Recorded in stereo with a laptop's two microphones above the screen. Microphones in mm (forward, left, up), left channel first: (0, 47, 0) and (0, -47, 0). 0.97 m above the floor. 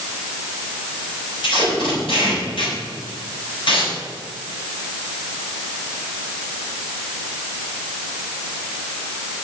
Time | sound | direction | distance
1.4 | tape being pulled | 65° left (ahead or behind) | 4.5 m